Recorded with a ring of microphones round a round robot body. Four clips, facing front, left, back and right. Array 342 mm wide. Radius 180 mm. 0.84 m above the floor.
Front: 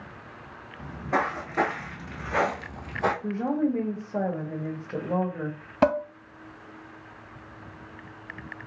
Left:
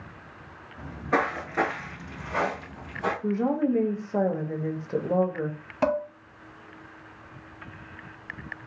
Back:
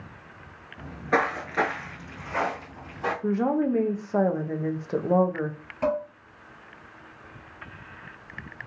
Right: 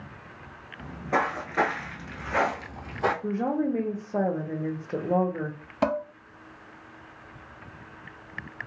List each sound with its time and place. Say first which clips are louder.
0.8 s footsteps: left 1 dB, back 2 dB; 155° left, 0.9 m; by 3.1 s 40° right, 1.2 m
3.2 s a woman speaking: left 2 dB, back 2 dB; 175° right, 0.7 m
5.8 s dishes clattering: left 1 dB, front 4 dB; 5° right, 0.7 m